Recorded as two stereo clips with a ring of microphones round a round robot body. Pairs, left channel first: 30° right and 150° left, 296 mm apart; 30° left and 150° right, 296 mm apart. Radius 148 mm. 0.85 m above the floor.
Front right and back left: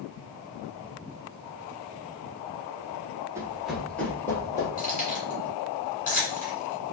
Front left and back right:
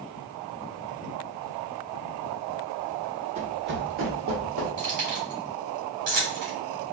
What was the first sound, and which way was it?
Running footsteps, 145° right.